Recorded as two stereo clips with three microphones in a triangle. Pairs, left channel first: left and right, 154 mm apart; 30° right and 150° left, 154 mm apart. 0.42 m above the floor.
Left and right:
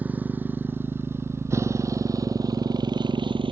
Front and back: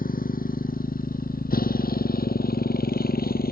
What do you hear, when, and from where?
0.0 s a motorcycle: 10° right; by 3.5 s 35° right